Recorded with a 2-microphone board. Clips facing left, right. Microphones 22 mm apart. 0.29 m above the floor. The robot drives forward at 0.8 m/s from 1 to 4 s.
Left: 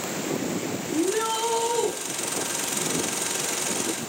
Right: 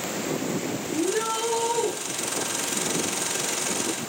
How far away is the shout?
About 5 m.